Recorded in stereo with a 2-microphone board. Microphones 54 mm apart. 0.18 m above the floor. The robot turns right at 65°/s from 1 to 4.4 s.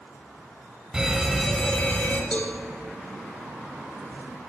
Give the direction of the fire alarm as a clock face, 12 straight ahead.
1 o'clock.